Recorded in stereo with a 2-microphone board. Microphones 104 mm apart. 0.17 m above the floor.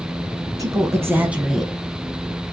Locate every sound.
0.6 s a woman speaking: 35° right (ahead or behind), 1.5 m; by 1.7 s 5° left (ahead or behind), 1.1 m